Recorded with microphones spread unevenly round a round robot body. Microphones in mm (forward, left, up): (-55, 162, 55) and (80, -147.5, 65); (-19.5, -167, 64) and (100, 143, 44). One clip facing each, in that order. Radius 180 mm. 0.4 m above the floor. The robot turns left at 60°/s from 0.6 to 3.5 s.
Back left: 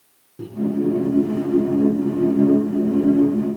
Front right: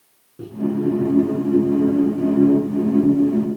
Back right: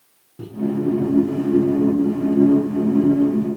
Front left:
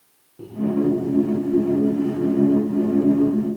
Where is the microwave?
170° right, 5 m.